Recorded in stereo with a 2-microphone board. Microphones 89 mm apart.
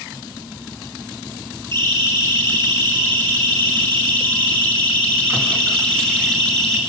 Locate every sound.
1.7 s a siren: 30° left (ahead or behind), 9 m; by 6.8 s 10° left (ahead or behind), 8.5 m